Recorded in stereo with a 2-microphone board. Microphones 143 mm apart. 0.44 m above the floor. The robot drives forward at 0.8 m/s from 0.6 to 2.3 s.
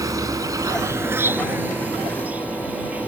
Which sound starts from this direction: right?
An insect, at 0.0 s.